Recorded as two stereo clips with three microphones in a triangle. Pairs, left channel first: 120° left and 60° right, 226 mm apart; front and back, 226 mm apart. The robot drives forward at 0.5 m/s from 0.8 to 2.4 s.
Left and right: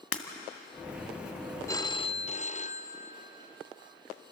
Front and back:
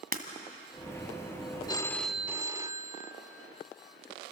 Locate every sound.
0.1 s breaking glass: 130° left, 1.8 m
1.7 s a phone ringing: 55° left, 0.6 m; by 3.1 s 115° left, 0.6 m